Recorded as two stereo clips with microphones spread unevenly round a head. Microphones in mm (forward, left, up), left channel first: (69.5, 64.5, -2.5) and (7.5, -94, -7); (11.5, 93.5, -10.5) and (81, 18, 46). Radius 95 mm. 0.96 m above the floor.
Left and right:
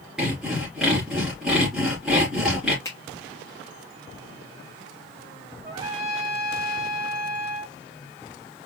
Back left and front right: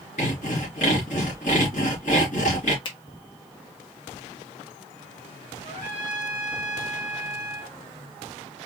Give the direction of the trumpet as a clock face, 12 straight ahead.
6 o'clock.